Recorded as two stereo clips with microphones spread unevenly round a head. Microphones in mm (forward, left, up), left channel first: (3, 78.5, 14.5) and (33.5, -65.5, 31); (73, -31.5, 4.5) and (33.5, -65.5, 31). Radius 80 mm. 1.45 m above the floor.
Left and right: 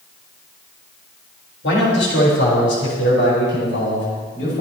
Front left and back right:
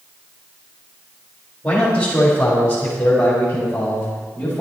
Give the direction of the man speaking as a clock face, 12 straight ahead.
8 o'clock.